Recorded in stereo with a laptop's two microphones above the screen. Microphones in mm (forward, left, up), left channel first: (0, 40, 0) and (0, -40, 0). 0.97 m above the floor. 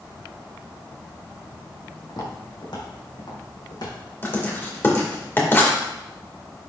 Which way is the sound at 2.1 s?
70° left (ahead or behind).